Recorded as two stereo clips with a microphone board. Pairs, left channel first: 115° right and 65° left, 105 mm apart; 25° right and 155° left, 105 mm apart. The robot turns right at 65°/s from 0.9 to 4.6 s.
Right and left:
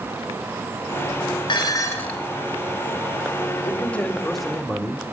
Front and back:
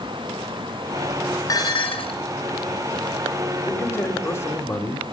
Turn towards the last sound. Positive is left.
turn(degrees=-10)